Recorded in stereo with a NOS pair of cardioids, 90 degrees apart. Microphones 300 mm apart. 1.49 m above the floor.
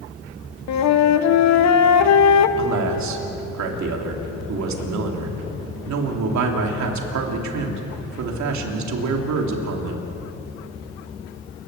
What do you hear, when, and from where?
0.7 s a flute: 65° left, 1.3 m
2.6 s a man speaking: 65° right, 3 m